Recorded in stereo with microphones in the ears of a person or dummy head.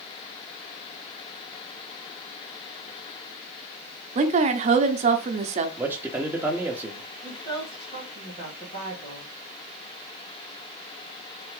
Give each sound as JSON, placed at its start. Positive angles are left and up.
{"t": 4.2, "sound": "a woman speaking", "side_deg": -40, "distance_m": 0.7}
{"t": 5.8, "sound": "a man speaking", "side_deg": -15, "distance_m": 0.7}
{"t": 7.2, "sound": "a woman speaking", "side_deg": 35, "distance_m": 1.7}